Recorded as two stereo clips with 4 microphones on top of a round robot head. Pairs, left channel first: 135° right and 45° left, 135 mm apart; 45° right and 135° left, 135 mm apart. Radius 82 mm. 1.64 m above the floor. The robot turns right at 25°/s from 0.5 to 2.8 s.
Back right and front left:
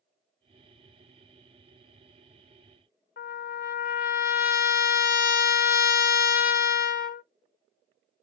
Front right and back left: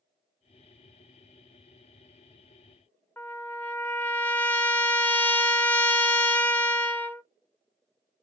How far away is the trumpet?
About 0.7 m.